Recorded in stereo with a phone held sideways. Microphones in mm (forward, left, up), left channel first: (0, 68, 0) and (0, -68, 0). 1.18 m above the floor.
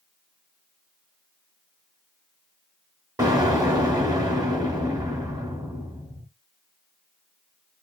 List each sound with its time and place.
3.2 s an explosion: 25° right (ahead or behind), 1.2 m